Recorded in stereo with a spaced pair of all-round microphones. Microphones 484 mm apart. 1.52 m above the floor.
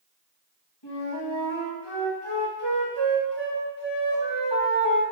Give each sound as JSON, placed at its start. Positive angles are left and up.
{"t": 0.8, "sound": "a flute", "side_deg": 55, "distance_m": 2.0}